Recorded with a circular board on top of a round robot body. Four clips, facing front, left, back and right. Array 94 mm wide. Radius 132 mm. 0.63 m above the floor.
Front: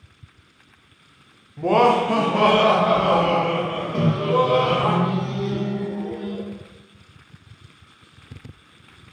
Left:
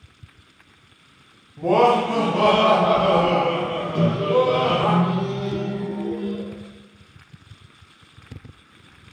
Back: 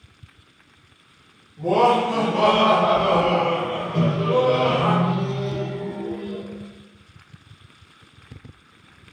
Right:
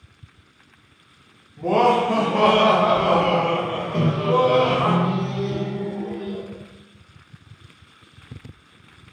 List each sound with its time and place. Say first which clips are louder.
1.6 s laughter: left 1 dB, front 1 dB; 20° left, 0.8 m; by 4.9 s 90° right, 1.6 m
3.9 s a microwave: left 1 dB, even; 65° right, 1.3 m